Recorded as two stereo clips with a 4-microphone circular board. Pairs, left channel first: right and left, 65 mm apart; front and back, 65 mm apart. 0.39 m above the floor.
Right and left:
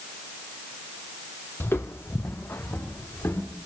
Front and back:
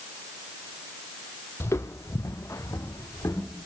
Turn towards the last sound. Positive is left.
turn(degrees=-40)